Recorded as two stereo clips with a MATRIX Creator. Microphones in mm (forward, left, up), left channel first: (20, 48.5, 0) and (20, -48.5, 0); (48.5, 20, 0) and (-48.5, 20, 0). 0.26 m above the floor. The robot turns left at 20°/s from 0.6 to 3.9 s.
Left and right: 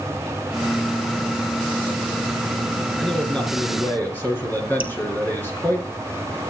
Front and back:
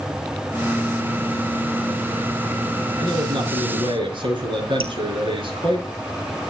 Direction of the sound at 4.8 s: 165° right.